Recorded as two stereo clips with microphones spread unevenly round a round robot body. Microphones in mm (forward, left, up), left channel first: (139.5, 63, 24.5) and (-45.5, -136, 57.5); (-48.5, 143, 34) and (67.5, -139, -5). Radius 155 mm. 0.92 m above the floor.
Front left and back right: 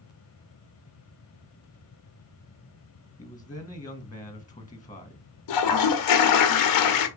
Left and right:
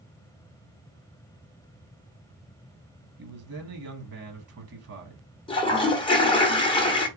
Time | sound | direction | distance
3.2 | a man speaking | 30° right | 1.0 m
5.5 | a toilet flushing | 40° left | 0.6 m